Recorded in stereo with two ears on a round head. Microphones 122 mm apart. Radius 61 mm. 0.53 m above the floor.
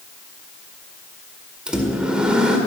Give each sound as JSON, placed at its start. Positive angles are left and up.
{"t": 1.7, "sound": "a microwave", "side_deg": -5, "distance_m": 1.7}